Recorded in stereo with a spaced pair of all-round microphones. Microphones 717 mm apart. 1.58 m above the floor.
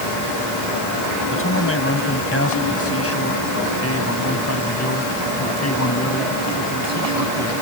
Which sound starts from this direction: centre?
A man speaking, at 1.3 s.